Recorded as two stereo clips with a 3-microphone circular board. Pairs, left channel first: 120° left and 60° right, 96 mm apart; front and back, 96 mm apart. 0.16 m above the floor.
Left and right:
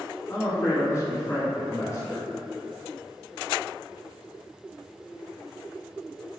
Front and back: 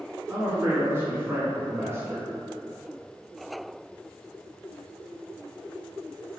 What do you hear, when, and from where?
0.3 s a man speaking: 140° left, 1.4 m